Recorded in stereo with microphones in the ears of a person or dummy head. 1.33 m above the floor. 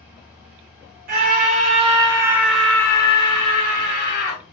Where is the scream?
55° right (ahead or behind), 1.3 m; by 4.4 s 55° left (ahead or behind), 1.5 m.